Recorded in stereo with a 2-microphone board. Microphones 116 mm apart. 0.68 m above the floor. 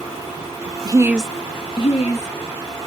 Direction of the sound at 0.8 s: 40° right (ahead or behind).